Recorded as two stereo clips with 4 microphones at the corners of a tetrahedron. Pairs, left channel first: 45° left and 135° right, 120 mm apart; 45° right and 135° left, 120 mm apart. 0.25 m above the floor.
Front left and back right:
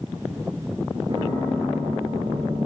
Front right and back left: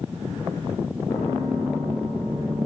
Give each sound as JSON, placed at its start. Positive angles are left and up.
{"t": 1.1, "sound": "a piano", "azimuth_deg": -95, "distance_m": 6.0}